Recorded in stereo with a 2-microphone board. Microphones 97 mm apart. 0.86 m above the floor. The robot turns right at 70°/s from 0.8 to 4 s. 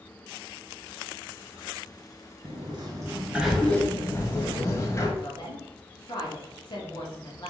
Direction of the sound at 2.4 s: 75° right.